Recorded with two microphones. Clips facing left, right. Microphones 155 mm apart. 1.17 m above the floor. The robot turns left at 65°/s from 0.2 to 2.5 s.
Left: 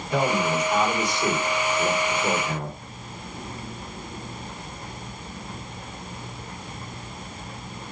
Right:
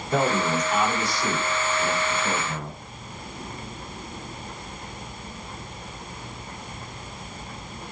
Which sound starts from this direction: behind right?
A man speaking, at 0.1 s.